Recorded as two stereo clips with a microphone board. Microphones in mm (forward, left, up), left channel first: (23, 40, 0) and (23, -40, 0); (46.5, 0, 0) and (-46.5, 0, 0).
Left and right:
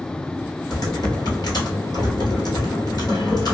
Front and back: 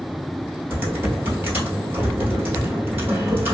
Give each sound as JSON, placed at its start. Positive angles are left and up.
{"t": 0.7, "sound": "typing on a keyboard", "azimuth_deg": 115, "distance_m": 1.2}